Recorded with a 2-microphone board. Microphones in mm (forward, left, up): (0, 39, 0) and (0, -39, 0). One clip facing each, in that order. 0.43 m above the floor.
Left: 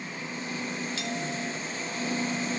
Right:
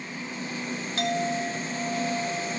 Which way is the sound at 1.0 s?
50° right (ahead or behind).